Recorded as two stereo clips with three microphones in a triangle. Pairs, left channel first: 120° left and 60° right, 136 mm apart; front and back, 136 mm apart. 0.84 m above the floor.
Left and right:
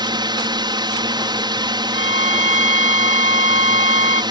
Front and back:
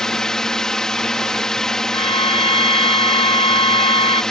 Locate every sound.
0.0 s a drone: 85° right
1.9 s a violin: 45° right